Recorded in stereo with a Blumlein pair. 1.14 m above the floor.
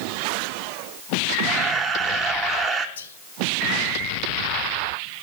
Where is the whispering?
65° left, 0.8 m.